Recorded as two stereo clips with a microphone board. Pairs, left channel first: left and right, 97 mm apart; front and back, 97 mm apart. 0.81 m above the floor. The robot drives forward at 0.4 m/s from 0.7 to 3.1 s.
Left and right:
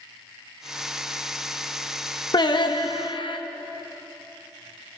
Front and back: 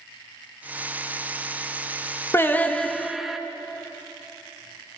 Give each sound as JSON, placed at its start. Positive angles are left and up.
{"t": 2.3, "sound": "singing", "azimuth_deg": 60, "distance_m": 0.6}